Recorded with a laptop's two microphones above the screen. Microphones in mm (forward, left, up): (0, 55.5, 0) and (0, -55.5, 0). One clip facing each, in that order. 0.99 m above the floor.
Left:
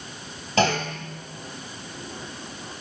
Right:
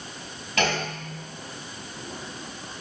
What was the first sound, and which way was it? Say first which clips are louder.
A clunk: left 4 dB; 30° left (ahead or behind).